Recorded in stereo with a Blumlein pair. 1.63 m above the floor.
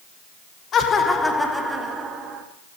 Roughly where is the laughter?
Ahead left.